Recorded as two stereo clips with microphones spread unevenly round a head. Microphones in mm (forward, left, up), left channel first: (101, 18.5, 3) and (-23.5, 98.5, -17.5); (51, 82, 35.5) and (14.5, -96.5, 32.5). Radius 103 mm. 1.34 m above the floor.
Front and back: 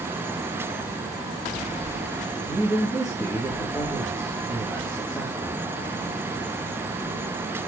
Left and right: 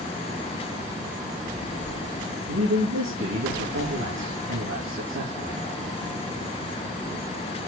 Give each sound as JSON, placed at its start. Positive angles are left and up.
{"t": 2.5, "sound": "a man speaking", "azimuth_deg": -125, "distance_m": 2.5}